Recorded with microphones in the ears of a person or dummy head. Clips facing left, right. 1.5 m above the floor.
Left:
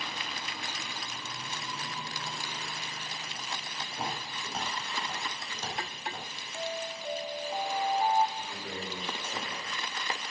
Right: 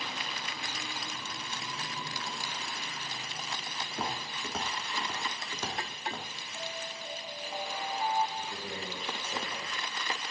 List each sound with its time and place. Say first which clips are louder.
3.9 s footsteps: even; 65° right (ahead or behind), 3.5 m; by 6.3 s 55° right (ahead or behind), 3.5 m
6.5 s an alarm: left 6 dB; 25° left (ahead or behind), 0.9 m
8.4 s a man speaking: even; 10° right (ahead or behind), 5 m